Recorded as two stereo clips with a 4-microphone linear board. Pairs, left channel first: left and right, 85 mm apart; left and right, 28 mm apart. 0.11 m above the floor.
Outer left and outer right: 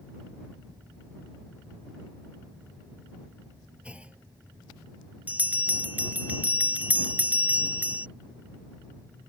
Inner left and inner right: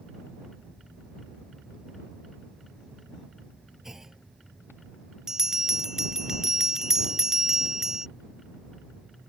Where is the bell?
20° right (ahead or behind).